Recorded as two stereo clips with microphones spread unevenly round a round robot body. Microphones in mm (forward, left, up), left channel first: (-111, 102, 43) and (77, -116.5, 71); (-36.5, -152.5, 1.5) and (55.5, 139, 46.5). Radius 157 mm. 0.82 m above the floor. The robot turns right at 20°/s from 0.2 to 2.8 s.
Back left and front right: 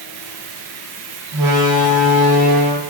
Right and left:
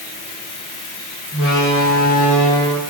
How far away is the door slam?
About 1.7 m.